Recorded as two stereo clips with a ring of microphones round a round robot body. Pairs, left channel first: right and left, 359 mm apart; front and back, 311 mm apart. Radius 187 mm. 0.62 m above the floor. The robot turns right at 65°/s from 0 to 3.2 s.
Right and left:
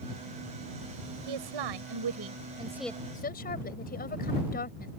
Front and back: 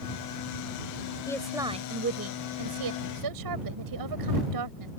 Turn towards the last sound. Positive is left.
turn(degrees=-155)